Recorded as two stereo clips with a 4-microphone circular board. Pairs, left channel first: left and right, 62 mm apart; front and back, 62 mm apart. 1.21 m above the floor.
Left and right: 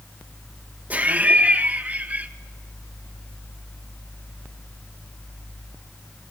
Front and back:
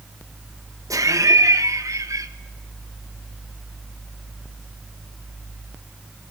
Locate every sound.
0.9 s laughter: 155° right, 1.5 m